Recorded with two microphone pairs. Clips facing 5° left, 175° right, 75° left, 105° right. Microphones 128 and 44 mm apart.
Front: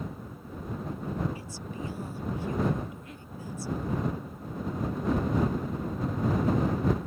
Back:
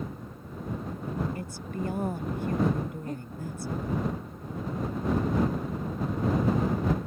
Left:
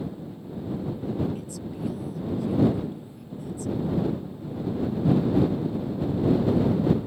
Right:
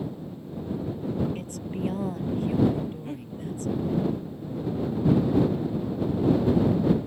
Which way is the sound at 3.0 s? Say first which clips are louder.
Back 10 dB, right 8 dB; 125° right.